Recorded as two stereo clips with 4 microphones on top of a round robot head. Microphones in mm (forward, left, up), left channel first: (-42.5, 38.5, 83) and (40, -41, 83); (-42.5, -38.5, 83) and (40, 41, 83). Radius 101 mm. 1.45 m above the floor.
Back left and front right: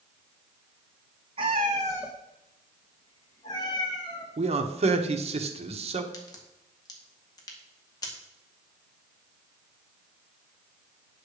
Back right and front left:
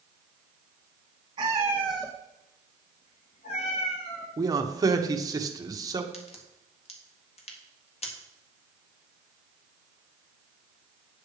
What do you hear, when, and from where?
1.4 s a cat meowing: 5° right, 0.8 m; by 4.3 s 170° right, 1.8 m
4.4 s a man speaking: 15° right, 1.2 m
6.1 s a crack: 165° right, 1.8 m